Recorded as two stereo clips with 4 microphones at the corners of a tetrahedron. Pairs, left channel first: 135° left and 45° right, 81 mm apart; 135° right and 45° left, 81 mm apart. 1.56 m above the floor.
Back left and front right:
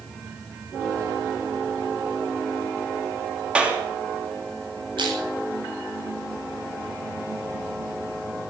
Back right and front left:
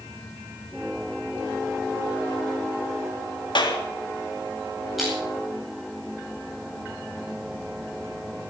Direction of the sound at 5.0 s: 45° right.